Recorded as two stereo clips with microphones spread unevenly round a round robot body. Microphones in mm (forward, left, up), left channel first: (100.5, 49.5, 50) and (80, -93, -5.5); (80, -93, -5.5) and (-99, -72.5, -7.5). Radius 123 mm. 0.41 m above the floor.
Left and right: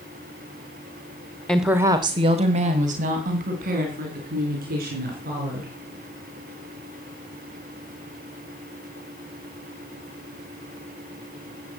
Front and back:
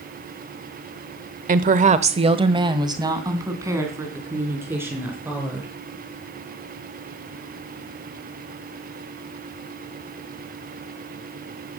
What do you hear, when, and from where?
1.5 s a woman speaking: 175° right, 1.0 m; by 5.7 s 105° right, 5.5 m